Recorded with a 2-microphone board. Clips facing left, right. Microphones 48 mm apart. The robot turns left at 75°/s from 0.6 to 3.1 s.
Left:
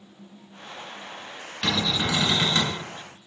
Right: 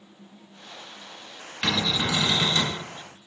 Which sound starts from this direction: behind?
A cupboard door, at 1.6 s.